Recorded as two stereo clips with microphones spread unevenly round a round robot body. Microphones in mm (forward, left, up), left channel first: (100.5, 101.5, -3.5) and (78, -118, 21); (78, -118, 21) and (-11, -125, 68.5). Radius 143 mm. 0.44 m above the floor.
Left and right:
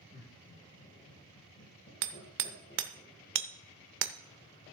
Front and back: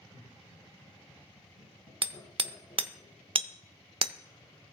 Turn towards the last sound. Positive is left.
turn(degrees=-130)